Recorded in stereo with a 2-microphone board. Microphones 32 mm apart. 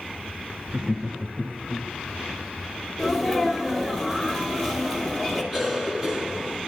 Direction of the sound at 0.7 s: 35° right (ahead or behind).